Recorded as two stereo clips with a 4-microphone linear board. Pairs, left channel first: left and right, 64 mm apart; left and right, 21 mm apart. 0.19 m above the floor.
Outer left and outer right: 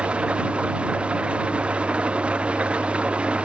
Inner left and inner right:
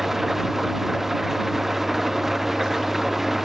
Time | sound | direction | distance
0.0 | an engine running | 15° right (ahead or behind) | ?